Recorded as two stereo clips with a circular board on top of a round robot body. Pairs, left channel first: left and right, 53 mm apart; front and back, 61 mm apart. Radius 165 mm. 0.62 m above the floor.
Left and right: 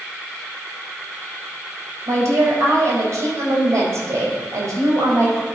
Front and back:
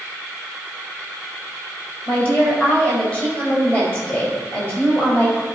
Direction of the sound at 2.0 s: 60° right.